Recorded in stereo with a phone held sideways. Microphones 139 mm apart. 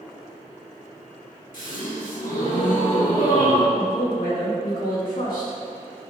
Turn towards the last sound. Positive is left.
turn(degrees=85)